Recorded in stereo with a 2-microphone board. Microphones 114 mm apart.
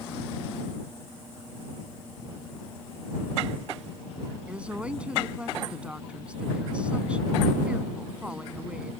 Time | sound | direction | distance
4.5 | a woman speaking | 10° right (ahead or behind) | ?